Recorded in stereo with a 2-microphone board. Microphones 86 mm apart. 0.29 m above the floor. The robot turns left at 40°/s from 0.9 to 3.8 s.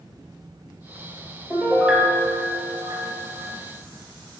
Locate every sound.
1.5 s a piano: 15° left, 2 m; by 3.5 s 65° right, 2 m